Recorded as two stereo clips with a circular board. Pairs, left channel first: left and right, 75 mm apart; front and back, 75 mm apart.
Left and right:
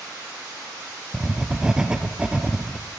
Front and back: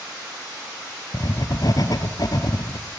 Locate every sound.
1.1 s writing: 15° right, 1.6 m